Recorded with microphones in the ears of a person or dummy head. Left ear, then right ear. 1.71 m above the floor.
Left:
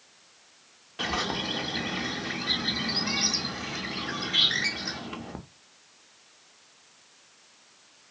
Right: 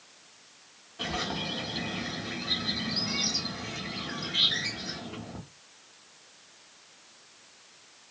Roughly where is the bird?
Left.